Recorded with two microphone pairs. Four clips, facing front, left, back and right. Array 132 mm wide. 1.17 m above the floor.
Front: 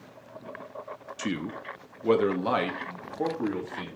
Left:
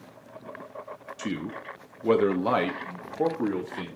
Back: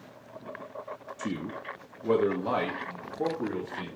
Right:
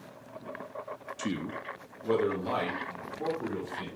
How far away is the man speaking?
About 0.8 m.